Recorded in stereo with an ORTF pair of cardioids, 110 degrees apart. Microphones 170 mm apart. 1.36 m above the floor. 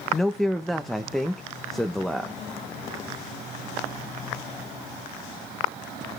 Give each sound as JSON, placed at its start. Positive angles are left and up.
{"t": 0.1, "sound": "a man speaking", "azimuth_deg": 0, "distance_m": 1.0}